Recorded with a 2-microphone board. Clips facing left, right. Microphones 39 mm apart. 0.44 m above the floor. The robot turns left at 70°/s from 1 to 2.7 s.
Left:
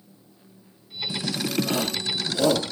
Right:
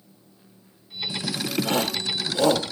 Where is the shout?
55° right (ahead or behind), 1.7 m; by 2.7 s centre (ahead or behind), 1.7 m.